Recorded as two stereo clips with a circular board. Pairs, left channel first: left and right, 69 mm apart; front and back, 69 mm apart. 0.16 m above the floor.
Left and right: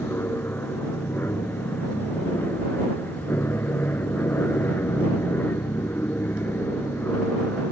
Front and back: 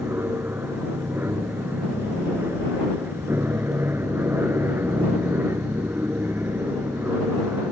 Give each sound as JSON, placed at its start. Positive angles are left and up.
{"t": 0.0, "sound": "an aircraft", "azimuth_deg": 135}